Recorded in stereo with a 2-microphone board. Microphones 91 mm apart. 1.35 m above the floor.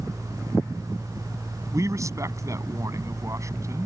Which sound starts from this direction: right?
A man speaking, at 1.7 s.